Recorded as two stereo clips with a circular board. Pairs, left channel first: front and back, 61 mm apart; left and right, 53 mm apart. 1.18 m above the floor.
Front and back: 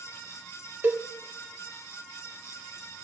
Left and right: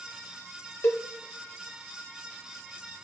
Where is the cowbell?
130° left, 1.0 m.